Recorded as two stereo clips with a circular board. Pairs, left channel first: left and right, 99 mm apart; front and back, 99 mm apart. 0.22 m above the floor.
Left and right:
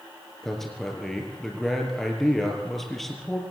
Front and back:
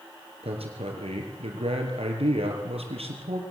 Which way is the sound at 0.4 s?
Straight behind.